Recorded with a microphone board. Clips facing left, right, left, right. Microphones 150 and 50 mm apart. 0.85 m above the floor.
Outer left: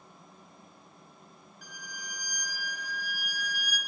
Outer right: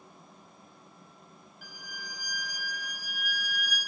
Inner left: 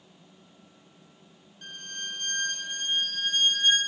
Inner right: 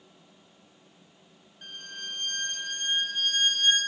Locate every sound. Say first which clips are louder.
1.6 s a violin: even, inner left 2 dB; 5° right (ahead or behind), 2 m